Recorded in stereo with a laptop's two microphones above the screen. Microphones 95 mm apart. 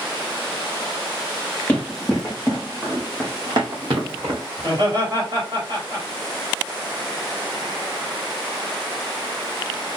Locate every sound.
1.7 s running footsteps: 15° left (ahead or behind), 2.0 m; by 4.4 s 65° right (ahead or behind), 2.5 m
4.6 s laughter: 55° right (ahead or behind), 2.0 m